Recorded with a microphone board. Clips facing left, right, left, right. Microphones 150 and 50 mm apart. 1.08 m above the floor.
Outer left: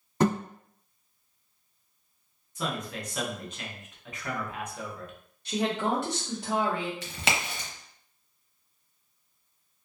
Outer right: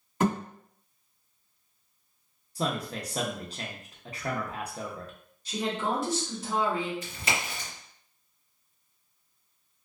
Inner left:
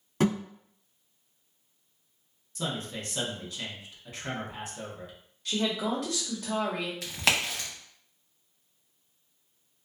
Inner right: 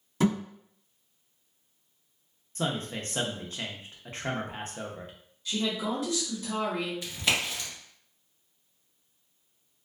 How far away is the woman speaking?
About 1.2 m.